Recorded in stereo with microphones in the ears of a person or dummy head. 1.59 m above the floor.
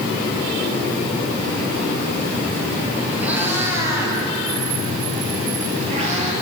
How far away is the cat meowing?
About 3.5 m.